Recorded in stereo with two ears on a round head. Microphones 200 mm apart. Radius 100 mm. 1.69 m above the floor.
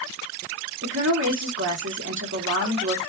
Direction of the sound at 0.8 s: 55° right (ahead or behind).